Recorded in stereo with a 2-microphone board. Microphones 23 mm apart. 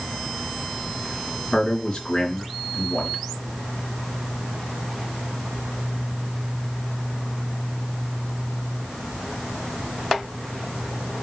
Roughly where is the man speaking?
Left.